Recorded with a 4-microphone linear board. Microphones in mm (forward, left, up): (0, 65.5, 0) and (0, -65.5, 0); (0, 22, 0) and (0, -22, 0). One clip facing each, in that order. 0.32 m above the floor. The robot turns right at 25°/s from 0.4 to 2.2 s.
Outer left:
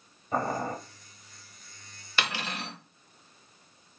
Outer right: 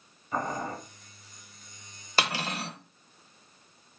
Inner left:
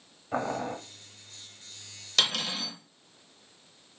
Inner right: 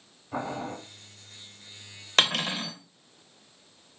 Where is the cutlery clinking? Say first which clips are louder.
Outer right 3 dB, inner right 4 dB; 40° right (ahead or behind), 0.6 m.